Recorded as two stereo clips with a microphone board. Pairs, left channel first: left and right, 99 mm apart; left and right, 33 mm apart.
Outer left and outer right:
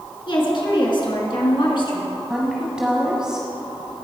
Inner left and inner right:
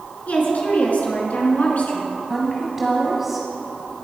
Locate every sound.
0.3 s a woman speaking: 55° left (ahead or behind), 2 m
2.3 s a woman speaking: 5° right (ahead or behind), 1.0 m